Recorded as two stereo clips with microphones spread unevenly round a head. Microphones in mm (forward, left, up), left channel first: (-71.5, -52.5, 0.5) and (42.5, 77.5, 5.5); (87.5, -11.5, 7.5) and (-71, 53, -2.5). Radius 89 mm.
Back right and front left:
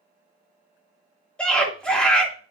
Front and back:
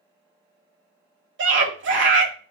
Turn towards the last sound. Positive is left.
turn(degrees=145)